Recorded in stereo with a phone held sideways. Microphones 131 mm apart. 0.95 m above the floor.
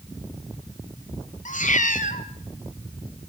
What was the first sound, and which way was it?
A cat meowing, 75° left (ahead or behind).